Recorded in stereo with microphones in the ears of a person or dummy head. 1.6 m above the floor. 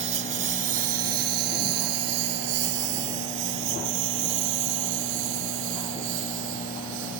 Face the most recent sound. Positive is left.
turn(degrees=-80)